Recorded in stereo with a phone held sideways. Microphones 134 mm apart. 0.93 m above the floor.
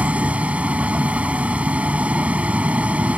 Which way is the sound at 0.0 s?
10° right (ahead or behind).